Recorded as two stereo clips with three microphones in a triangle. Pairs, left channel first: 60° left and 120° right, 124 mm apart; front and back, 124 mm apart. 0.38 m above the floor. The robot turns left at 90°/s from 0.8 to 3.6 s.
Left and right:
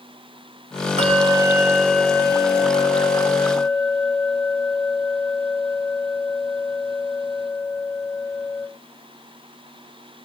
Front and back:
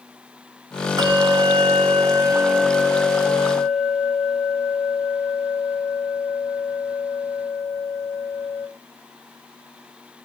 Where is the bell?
125° right, 0.9 m; by 8.7 s 5° right, 0.9 m.